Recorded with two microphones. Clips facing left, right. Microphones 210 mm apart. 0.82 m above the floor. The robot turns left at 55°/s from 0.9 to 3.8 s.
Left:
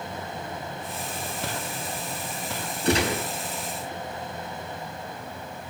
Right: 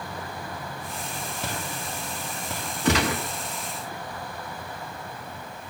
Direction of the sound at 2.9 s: 85° right.